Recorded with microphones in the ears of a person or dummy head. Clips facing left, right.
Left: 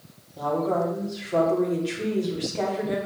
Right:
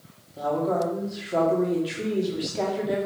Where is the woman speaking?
10° right (ahead or behind), 2.5 m.